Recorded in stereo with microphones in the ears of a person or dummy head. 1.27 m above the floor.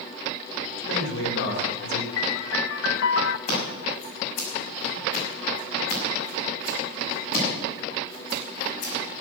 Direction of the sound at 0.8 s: 65° left (ahead or behind).